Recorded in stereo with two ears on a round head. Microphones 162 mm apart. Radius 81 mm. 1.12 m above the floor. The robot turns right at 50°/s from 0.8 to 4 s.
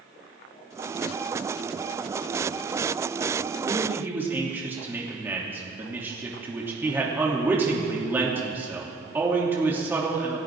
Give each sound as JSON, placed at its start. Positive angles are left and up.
{"t": 3.7, "sound": "a man speaking", "side_deg": -30, "distance_m": 3.0}